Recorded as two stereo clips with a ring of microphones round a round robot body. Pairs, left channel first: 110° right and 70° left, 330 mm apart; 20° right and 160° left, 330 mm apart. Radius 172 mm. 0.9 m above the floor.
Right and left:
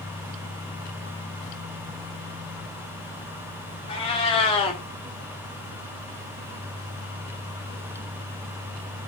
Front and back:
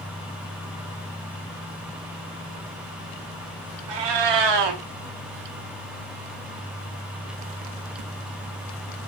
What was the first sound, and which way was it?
A cat meowing, 175° left.